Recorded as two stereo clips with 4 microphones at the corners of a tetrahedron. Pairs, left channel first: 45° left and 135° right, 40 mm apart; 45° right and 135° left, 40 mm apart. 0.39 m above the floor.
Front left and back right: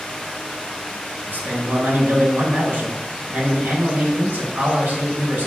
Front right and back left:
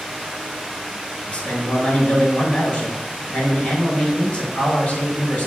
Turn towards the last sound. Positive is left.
turn(degrees=-95)